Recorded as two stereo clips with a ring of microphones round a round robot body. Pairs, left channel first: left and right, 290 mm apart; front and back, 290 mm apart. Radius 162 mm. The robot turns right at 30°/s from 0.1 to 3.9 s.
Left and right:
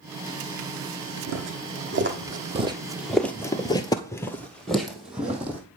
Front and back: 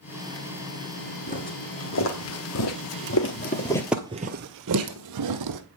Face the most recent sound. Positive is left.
turn(degrees=-175)